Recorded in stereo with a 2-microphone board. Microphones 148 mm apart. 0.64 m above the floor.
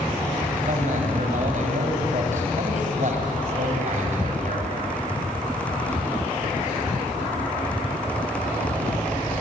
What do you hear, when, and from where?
0.7 s a man speaking: 60° right (ahead or behind), 5 m